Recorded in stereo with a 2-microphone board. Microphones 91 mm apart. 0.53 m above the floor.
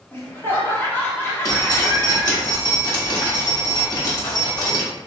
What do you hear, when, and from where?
0.1 s laughter: 25° left (ahead or behind), 0.8 m
1.4 s dripping: 40° left (ahead or behind), 1.0 m